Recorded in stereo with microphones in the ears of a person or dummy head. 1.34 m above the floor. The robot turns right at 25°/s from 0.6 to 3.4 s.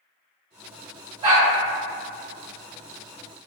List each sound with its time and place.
1.2 s a dog barking: 30° right (ahead or behind), 0.8 m